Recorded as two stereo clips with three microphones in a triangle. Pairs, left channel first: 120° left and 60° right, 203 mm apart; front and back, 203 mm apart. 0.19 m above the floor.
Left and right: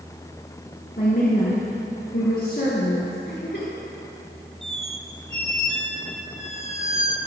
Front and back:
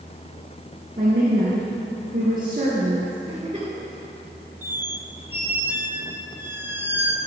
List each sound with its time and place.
1.0 s a woman speaking: 145° left, 3 m
3.3 s a giggle: 125° left, 3.5 m
4.6 s a squeak: 105° right, 0.9 m